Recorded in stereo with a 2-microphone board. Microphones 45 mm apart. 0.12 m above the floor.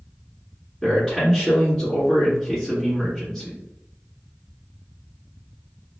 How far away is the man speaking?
About 1.7 m.